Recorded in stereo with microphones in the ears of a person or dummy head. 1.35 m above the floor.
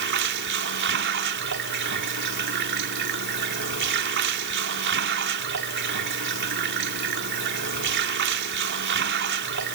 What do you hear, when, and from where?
0.0 s running water: 60° right (ahead or behind)